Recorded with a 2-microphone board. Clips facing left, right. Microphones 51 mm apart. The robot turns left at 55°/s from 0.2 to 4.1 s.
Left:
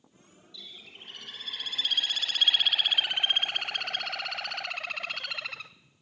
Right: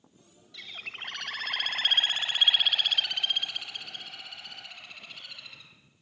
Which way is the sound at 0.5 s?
65° right.